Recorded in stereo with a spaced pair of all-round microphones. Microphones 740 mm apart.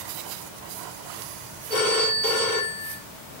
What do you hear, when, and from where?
1.7 s a phone ringing: 60° left (ahead or behind), 3 m